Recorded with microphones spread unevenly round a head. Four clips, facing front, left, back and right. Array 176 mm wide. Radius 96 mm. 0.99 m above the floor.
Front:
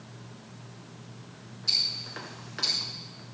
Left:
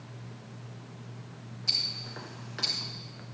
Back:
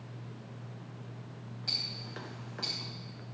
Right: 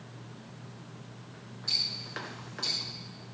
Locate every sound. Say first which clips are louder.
1.7 s ticking: right 2 dB, front 3 dB; 155° left, 3 m